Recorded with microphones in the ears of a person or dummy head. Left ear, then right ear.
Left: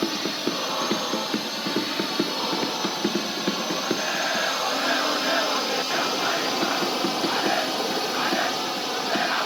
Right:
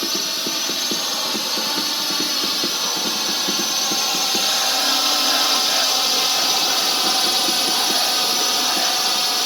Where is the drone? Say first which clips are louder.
Right 4 dB; 35° right (ahead or behind); by 9.5 s 50° right (ahead or behind).